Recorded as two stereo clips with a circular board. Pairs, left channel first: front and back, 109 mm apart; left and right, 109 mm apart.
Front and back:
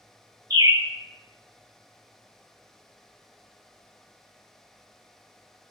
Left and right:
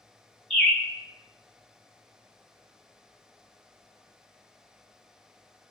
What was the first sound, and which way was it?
A bird, 175° left.